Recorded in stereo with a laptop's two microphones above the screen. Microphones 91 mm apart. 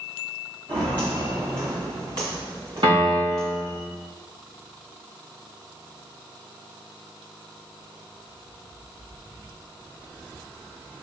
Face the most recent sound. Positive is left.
turn(degrees=-70)  # may be behind; listen again after turning